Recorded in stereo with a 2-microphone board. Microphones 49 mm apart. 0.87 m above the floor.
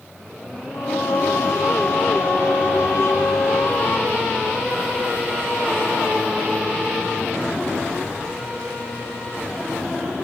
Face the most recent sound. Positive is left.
turn(degrees=60)  # may be behind; listen again after turning